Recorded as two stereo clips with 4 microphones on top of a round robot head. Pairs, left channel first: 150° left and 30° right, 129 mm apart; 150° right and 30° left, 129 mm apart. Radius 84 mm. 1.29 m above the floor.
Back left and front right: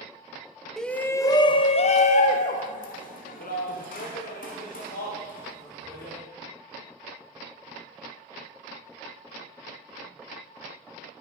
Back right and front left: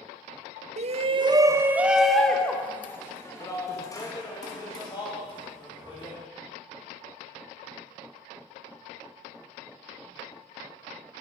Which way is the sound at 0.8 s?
60° left.